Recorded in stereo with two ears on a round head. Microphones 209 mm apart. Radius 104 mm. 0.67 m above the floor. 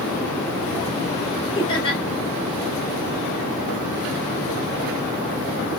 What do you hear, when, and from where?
1.6 s laughter: 20° left (ahead or behind), 1.9 m